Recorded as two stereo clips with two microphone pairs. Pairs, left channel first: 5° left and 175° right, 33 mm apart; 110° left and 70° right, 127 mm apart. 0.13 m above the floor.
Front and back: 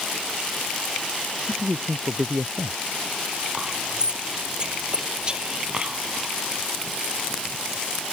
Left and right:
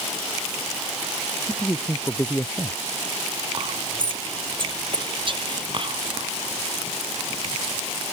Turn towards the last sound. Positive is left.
turn(degrees=-115)